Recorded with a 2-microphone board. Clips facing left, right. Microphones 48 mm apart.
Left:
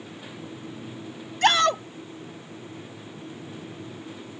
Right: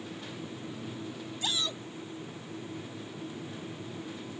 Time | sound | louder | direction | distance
1.4 | a shout | left 16 dB | 75° left (ahead or behind) | ?